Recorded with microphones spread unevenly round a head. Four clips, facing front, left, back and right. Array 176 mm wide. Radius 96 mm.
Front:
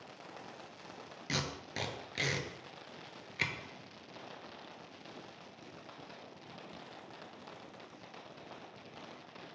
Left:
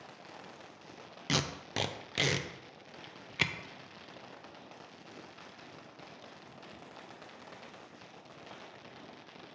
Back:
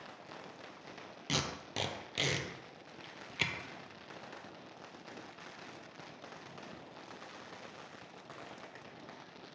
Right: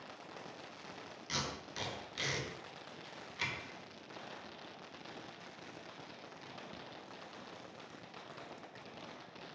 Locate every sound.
1.3 s tape being pulled: 95° left, 0.6 m